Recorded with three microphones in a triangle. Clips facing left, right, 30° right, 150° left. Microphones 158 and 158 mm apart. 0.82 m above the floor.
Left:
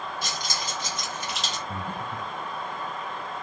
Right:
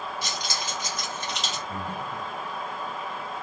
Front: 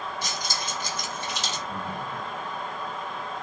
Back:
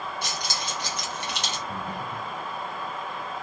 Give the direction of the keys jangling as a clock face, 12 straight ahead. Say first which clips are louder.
Even, even; 8 o'clock.